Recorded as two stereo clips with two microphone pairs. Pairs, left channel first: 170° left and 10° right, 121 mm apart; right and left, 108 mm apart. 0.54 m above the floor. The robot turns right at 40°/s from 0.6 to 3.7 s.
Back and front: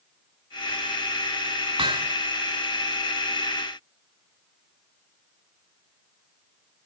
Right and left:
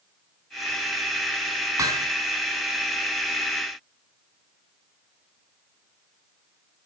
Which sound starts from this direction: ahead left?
Hammering, at 1.8 s.